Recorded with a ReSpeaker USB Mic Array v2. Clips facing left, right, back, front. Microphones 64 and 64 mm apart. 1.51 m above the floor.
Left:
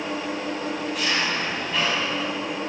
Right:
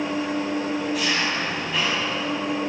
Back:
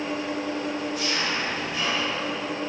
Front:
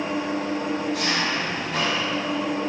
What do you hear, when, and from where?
0.0 s an engine running: straight ahead, 9 m